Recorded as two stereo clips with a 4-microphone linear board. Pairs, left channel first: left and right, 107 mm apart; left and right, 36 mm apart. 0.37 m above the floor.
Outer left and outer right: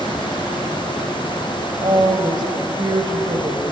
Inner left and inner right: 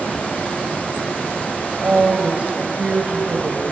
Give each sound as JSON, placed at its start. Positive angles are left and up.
{"t": 1.8, "sound": "a woman speaking", "side_deg": -45, "distance_m": 2.0}